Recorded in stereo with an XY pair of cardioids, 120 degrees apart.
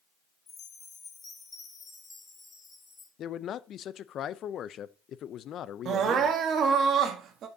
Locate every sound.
0.5 s a chime: 35° left, 2.5 m
3.2 s a man speaking: 55° left, 0.5 m
5.8 s crying: 55° right, 1.3 m